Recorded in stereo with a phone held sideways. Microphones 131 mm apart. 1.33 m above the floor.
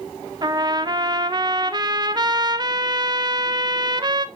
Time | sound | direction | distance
0.4 | a trumpet | 35° right (ahead or behind) | 0.5 m